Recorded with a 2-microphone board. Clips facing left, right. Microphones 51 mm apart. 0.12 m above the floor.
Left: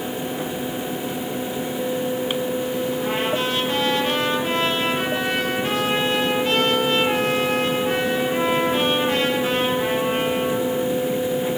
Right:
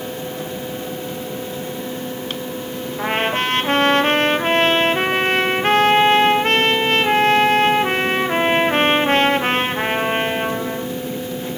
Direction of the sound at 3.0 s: 55° right (ahead or behind).